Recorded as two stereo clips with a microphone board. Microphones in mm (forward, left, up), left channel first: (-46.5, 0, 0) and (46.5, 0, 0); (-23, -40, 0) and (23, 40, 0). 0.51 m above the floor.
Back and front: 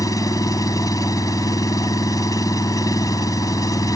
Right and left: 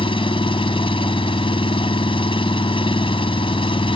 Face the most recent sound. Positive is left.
turn(degrees=-135)